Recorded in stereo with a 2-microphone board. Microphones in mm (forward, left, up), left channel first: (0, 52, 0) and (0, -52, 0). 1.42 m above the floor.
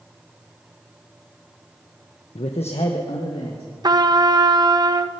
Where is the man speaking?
80° left, 0.9 m.